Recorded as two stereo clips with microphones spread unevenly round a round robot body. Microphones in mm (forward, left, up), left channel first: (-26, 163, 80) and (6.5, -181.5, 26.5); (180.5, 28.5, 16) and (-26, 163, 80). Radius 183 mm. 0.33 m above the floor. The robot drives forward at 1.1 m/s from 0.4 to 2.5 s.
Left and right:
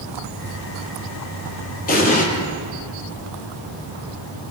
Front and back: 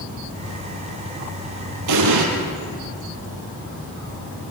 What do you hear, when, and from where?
1.9 s an explosion: 160° left, 4.5 m; by 2.3 s 165° left, 5 m